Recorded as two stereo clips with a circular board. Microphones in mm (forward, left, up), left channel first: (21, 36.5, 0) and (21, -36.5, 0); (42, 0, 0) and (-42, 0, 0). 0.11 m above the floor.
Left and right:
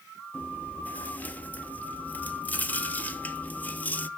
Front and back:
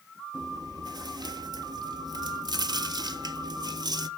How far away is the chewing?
About 0.7 m.